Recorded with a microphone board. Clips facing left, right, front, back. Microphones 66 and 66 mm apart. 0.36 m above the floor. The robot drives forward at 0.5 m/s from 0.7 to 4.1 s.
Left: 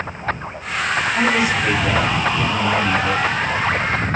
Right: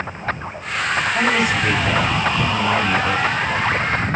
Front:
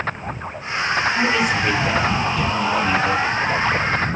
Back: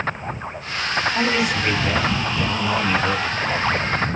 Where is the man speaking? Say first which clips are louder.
Left 1 dB, front 2 dB; 110° right, 2.5 m; by 3.2 s 130° right, 3 m.